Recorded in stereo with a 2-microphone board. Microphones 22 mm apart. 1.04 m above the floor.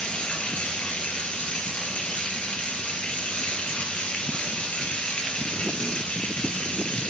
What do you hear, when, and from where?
0.0 s running water: 65° left (ahead or behind), 3 m